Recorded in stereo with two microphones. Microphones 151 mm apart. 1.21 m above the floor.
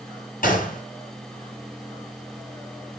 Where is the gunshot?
65° left (ahead or behind), 5.5 m.